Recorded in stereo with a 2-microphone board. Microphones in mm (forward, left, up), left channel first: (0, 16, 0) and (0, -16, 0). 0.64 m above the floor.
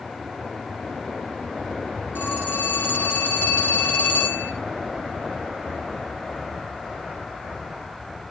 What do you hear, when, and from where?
2.1 s a phone ringing: 85° left, 6 m